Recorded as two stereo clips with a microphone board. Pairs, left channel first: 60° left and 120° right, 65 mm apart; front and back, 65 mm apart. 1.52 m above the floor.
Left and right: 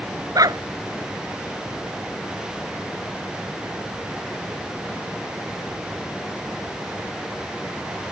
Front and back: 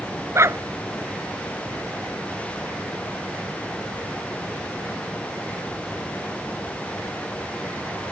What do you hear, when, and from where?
0.3 s a dog barking: 135° right